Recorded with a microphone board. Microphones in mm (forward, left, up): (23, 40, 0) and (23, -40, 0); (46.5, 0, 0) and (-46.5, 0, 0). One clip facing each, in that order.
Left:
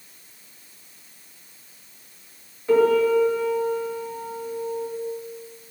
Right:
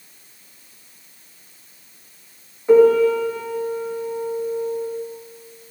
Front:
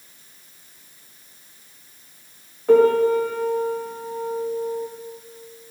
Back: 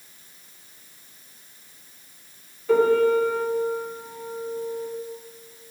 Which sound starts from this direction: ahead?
A piano, at 2.7 s.